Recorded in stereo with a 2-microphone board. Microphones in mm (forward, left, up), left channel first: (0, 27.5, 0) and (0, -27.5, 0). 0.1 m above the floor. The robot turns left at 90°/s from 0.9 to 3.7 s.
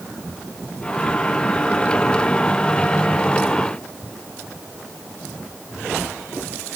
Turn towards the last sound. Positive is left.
No sound to turn to.